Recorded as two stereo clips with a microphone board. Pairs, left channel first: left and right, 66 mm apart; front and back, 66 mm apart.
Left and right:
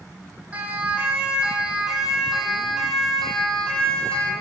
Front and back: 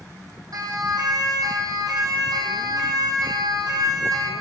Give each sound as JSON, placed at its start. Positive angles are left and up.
{"t": 0.5, "sound": "a siren", "azimuth_deg": -155, "distance_m": 6.5}